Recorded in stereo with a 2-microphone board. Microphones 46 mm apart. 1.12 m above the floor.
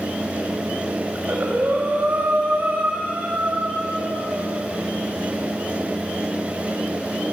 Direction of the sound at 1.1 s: 35° right (ahead or behind).